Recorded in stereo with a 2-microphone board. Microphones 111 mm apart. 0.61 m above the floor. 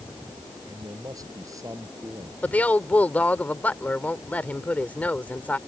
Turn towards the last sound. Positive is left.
turn(degrees=15)  # may be behind; listen again after turning